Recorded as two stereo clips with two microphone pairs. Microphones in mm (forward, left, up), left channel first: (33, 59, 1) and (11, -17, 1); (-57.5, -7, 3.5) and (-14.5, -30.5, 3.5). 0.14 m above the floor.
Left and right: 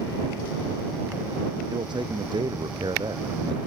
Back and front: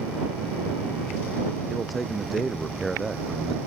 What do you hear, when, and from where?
1.7 s a man speaking: 120° right